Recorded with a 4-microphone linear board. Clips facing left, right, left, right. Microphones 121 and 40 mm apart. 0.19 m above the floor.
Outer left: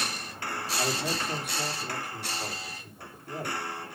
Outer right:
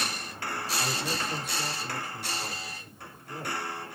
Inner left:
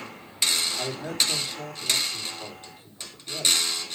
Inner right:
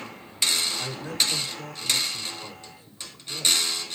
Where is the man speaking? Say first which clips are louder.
Outer left 4 dB, even; 70° left (ahead or behind), 6.5 m.